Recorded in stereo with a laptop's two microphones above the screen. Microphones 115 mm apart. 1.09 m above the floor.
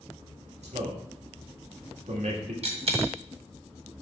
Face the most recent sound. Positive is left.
turn(degrees=-65)  # may be behind; listen again after turning